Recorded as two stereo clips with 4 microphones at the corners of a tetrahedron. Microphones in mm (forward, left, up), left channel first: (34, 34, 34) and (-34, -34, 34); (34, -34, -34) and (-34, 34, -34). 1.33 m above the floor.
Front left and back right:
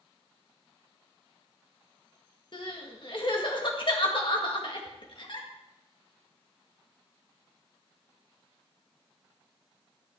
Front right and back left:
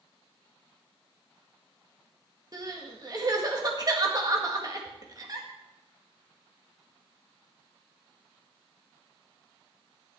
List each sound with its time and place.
2.5 s crying: 85° left, 1.9 m